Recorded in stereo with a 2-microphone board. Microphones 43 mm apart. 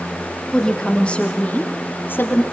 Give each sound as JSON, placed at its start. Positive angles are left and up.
{"t": 0.5, "sound": "a woman speaking", "side_deg": 15, "distance_m": 3.5}